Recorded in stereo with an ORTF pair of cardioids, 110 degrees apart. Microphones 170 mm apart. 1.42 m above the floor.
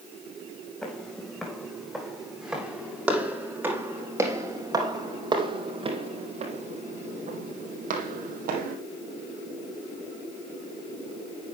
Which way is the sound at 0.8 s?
5° left.